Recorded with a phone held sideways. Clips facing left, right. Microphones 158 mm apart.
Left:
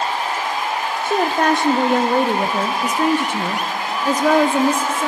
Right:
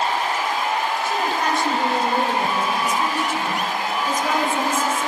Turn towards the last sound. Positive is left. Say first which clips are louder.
# left 10 dB
turn(degrees=65)  # may be behind; listen again after turning